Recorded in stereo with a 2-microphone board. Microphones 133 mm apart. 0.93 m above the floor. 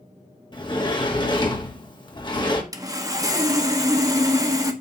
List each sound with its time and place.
0.5 s a sliding door: 35° left (ahead or behind), 1.5 m
2.7 s sawing: 25° right (ahead or behind), 1.0 m